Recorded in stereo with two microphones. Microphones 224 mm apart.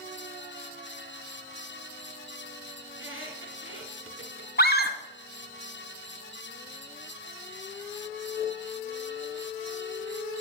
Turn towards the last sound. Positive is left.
turn(degrees=45)  # may be behind; listen again after turning